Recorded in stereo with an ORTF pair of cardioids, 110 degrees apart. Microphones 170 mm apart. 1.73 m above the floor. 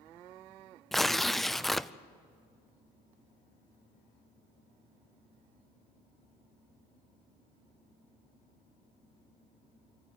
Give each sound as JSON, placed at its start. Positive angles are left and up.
{"t": 0.9, "sound": "tearing paper", "azimuth_deg": 0, "distance_m": 0.5}